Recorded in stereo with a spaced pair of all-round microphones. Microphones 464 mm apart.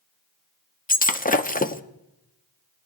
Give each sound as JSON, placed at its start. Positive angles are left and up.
{"t": 0.9, "sound": "breaking glass", "side_deg": 20, "distance_m": 0.5}